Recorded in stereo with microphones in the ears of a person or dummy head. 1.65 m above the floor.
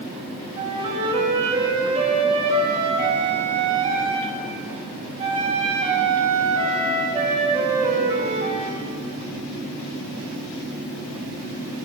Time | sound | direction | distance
0.6 | a flute | 25° right (ahead or behind) | 3 m